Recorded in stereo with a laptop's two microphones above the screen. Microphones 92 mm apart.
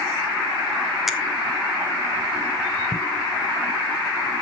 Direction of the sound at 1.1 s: Centre (ahead or behind).